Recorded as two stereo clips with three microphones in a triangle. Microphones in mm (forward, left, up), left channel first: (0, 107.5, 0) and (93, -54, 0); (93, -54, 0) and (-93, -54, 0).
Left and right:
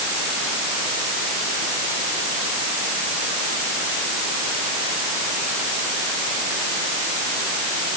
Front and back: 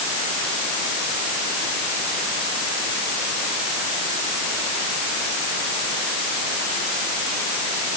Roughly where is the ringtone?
I don't hear a ringtone.